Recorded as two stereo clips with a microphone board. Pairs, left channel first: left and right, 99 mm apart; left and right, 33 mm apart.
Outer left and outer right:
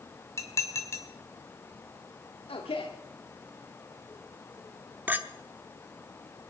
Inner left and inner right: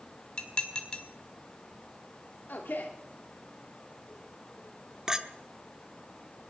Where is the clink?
20° right (ahead or behind), 1.0 m.